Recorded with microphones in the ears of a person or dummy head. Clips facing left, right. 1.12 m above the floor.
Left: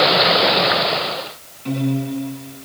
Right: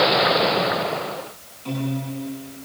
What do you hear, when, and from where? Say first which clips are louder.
1.6 s a piano: left 6 dB; 25° left (ahead or behind), 8.5 m